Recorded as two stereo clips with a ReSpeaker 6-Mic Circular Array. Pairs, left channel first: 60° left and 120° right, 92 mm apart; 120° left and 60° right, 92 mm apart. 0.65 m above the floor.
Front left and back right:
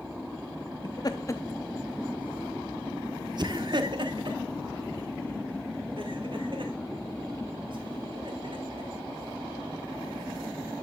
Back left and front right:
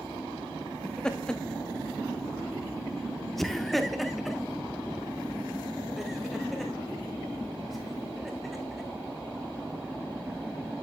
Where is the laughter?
40° left, 0.8 m; by 8.9 s 150° right, 4 m.